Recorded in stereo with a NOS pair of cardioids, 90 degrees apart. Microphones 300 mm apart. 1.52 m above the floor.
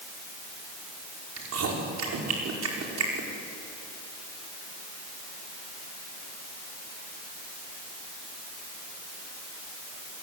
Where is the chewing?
60° right, 5.5 m.